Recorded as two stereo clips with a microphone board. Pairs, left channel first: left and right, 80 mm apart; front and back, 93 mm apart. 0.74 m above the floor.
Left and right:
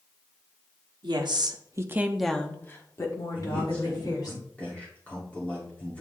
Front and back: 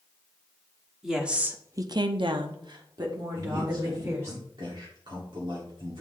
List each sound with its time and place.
1.0 s a woman speaking: 95° right, 1.3 m; by 4.3 s 125° left, 2.5 m
3.4 s a man speaking: 160° left, 2 m